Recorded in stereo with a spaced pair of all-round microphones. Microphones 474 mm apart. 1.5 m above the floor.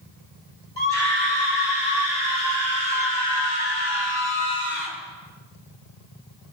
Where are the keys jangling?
I don't hear keys jangling.